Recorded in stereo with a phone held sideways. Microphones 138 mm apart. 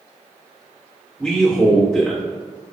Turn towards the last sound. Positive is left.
turn(degrees=5)  # may be behind; listen again after turning